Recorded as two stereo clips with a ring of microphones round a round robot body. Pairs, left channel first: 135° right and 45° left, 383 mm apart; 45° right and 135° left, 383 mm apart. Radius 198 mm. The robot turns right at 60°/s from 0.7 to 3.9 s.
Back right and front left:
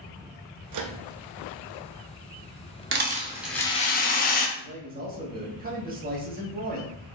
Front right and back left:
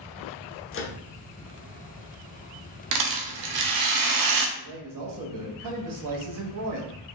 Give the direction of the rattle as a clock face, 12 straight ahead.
9 o'clock.